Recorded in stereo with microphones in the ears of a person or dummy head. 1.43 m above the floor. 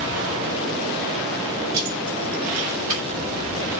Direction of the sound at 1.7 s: 15° right (ahead or behind).